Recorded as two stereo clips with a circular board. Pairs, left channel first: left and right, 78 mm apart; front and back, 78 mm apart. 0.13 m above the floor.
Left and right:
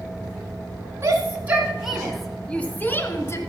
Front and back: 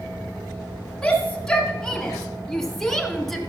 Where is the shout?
75° right, 1.5 m; by 3.4 s 85° left, 1.6 m.